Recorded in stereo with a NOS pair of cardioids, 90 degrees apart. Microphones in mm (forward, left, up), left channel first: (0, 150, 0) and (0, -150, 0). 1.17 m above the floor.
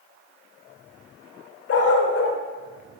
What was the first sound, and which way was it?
A dog barking, 55° left.